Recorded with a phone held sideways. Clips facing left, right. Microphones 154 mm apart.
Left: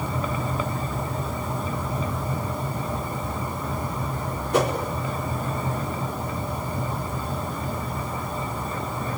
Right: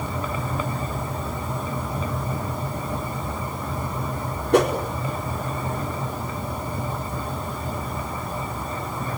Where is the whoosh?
70° right (ahead or behind), 4.5 m.